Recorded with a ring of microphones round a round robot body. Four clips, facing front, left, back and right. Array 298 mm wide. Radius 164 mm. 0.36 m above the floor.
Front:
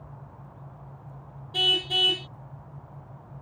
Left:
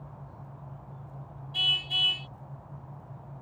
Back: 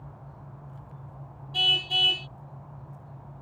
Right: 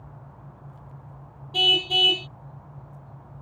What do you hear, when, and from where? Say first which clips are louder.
1.5 s a car horn: right 11 dB, front 2 dB; 65° right